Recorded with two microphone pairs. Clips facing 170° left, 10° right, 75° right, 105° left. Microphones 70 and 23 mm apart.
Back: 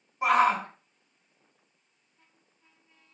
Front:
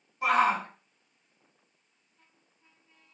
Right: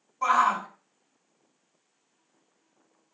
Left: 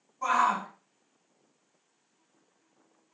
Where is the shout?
125° right, 3 m.